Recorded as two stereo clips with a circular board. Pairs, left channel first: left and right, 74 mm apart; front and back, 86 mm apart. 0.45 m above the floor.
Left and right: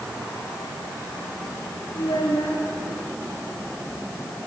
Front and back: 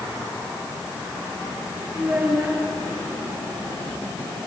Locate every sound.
1.9 s a child speaking: 105° left, 4.5 m